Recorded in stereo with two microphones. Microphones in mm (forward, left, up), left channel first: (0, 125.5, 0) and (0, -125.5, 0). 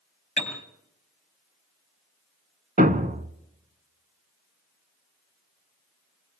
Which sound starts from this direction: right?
A thud, at 2.8 s.